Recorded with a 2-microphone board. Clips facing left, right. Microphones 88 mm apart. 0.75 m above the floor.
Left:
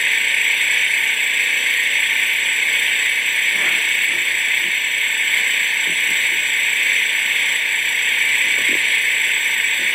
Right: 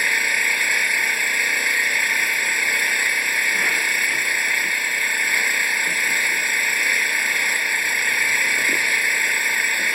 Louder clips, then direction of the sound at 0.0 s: Left 1 dB; 20° right (ahead or behind).